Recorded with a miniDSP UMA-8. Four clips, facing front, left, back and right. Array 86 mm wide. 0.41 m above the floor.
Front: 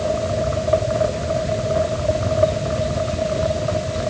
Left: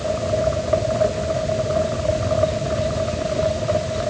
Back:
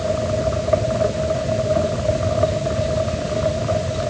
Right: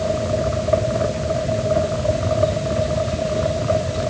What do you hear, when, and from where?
Only background noise.